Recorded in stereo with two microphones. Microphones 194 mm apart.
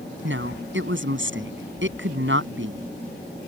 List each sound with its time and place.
0.2 s a woman speaking: 90° right